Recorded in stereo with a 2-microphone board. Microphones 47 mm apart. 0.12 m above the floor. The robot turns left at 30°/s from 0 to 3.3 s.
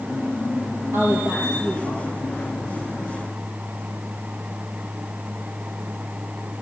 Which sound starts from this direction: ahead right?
A woman speaking, at 0.9 s.